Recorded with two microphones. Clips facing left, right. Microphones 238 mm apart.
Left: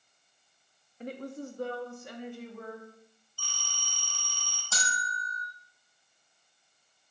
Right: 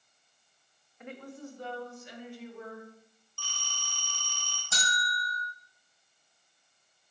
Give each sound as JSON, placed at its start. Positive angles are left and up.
{"t": 1.0, "sound": "a woman speaking", "side_deg": 35, "distance_m": 0.5}
{"t": 3.4, "sound": "a phone ringing", "side_deg": -85, "distance_m": 2.5}
{"t": 4.7, "sound": "a bell", "side_deg": -15, "distance_m": 2.5}